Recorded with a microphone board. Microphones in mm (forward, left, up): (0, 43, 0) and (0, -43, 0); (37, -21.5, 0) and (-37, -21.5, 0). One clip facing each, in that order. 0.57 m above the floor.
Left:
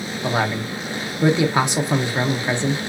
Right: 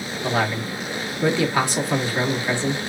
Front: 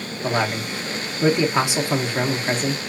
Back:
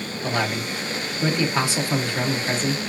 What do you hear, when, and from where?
0.2 s a man speaking: 45° left, 0.6 m